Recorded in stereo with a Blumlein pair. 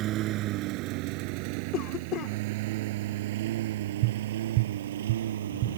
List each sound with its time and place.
0.0 s a lawn mower: 35° right; by 5.8 s 65° right
1.7 s a cough: 35° left
4.0 s tapping: 45° right